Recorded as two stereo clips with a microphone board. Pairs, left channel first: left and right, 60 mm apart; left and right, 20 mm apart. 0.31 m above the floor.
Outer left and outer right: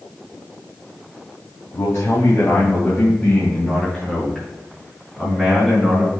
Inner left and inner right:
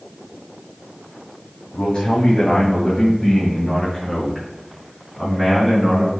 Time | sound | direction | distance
1.7 | a man speaking | 50° left (ahead or behind) | 2.5 m